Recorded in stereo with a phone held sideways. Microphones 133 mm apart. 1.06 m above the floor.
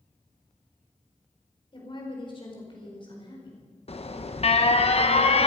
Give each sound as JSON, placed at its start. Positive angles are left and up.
{"t": 1.7, "sound": "a woman speaking", "side_deg": 40, "distance_m": 4.5}
{"t": 3.9, "sound": "an alarm", "side_deg": 50, "distance_m": 0.9}